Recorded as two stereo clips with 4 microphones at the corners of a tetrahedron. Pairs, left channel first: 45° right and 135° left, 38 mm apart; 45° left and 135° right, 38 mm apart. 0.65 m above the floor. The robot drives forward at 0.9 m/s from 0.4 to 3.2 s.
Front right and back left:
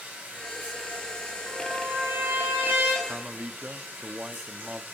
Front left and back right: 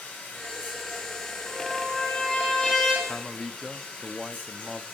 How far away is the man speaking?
About 0.6 m.